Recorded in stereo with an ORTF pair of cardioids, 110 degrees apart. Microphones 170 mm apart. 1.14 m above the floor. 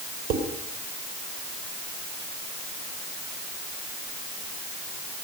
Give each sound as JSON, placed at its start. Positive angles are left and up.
{"t": 0.3, "sound": "dishes clattering", "azimuth_deg": -60, "distance_m": 3.0}